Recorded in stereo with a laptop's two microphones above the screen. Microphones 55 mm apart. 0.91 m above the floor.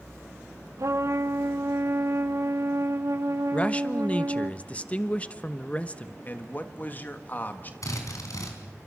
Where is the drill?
80° left, 4 m.